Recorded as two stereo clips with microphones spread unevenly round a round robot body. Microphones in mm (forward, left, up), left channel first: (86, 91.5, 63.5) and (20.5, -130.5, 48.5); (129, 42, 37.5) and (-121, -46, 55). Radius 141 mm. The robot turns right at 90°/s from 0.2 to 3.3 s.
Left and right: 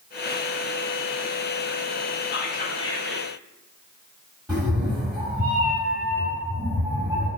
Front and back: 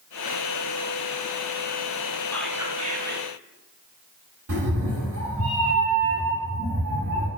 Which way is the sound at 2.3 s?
95° left.